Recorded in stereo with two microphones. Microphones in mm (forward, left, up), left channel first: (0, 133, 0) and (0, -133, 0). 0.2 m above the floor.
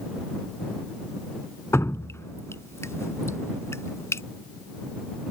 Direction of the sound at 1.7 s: 10° left (ahead or behind).